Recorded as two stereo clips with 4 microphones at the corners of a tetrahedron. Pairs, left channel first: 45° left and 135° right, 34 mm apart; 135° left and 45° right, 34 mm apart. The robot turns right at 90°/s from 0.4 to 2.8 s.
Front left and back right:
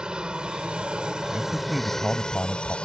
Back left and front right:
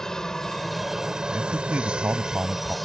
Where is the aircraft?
165° right; by 2.9 s 50° left.